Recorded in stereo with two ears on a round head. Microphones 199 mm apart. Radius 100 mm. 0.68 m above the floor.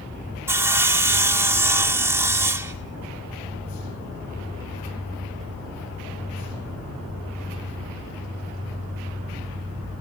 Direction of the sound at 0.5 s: 10° right (ahead or behind).